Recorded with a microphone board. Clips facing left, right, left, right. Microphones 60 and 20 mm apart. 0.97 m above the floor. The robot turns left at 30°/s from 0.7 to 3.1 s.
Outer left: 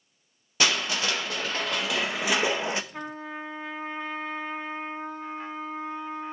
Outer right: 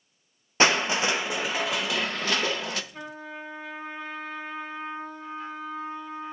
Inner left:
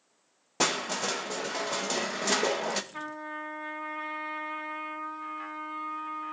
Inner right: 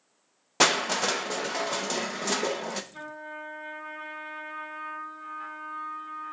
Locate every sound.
0.6 s crushing: 145° right, 0.7 m; by 2.8 s 150° left, 0.7 m
2.9 s a trumpet: 50° left (ahead or behind), 1.3 m; by 6.3 s 45° left (ahead or behind), 1.3 m